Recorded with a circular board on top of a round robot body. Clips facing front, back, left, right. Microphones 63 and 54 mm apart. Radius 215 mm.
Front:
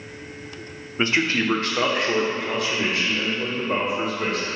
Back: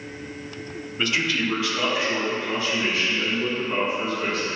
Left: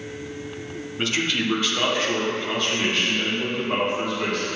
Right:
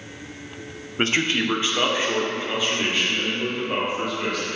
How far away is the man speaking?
About 1.1 m.